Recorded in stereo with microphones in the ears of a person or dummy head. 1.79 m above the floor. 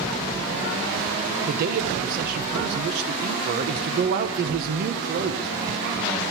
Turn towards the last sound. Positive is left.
turn(degrees=-50)  # may be behind; listen again after turning